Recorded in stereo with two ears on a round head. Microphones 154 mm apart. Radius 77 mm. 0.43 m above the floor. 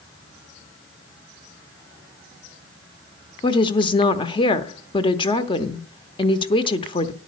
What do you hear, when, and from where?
3.4 s a woman speaking: 30° left (ahead or behind), 0.8 m